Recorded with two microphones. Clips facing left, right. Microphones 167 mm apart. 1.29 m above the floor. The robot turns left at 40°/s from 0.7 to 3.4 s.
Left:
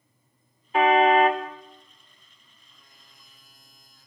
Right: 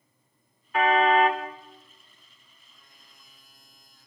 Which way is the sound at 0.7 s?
25° left (ahead or behind).